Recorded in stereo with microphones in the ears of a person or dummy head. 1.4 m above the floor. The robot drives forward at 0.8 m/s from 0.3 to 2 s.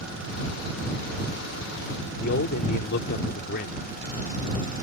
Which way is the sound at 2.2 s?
60° left (ahead or behind).